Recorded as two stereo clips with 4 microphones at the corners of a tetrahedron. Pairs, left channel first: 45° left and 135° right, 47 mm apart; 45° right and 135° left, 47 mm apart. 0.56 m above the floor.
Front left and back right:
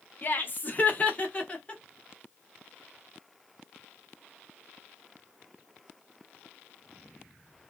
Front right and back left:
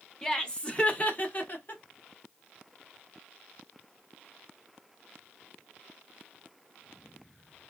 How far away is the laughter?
About 1.1 m.